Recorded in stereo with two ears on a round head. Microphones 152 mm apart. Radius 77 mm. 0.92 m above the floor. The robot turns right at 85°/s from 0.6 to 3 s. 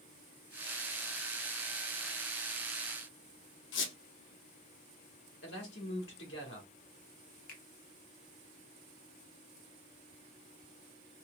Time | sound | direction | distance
3.7 | a squeak | 85° left | 0.7 m
5.4 | a man speaking | 70° left (ahead or behind) | 1.5 m
7.5 | a finger snap | 50° left (ahead or behind) | 0.8 m